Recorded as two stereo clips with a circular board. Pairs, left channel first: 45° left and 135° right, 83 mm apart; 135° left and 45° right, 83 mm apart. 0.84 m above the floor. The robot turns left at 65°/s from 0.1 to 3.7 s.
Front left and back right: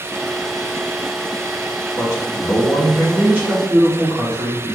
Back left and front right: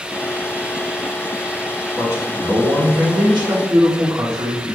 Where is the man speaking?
25° left, 2.5 m; by 4.8 s 90° right, 2.5 m.